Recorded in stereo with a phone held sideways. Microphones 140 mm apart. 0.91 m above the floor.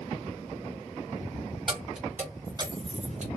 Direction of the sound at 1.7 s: Centre (ahead or behind).